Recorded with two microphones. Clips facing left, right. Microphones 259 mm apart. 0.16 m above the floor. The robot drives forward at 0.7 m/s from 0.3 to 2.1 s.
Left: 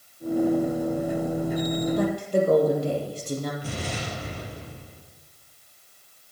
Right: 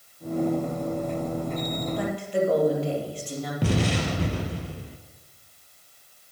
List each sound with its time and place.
2.0 s a woman speaking: 45° left (ahead or behind), 4.5 m
3.6 s an explosion: 75° right (ahead or behind), 2 m